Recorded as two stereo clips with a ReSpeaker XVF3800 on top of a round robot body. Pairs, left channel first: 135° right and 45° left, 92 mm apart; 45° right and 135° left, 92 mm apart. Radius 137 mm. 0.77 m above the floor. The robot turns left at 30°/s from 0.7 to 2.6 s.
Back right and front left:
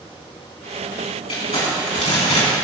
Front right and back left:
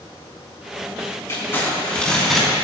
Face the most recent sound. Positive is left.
turn(degrees=-140)